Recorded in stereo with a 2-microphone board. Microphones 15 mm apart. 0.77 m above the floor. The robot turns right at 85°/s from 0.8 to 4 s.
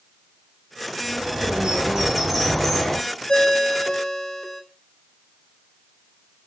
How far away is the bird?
About 7 m.